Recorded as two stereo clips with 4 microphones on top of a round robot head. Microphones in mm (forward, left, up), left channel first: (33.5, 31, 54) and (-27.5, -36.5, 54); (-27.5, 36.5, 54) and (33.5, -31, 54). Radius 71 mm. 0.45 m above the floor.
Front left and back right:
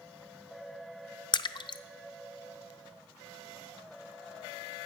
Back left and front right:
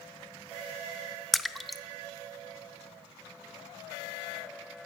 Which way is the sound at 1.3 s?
45° left.